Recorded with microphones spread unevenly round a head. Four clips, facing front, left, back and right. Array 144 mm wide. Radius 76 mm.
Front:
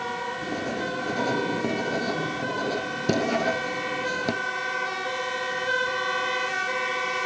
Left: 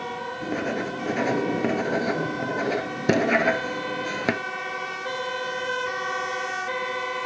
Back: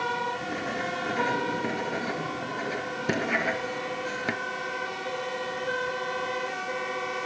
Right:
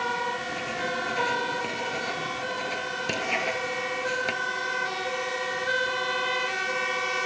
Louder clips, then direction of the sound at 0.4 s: Left 4 dB, front 2 dB; 70° left.